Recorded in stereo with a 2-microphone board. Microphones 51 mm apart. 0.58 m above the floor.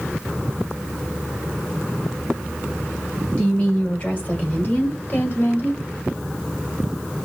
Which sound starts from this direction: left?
A woman speaking, at 3.4 s.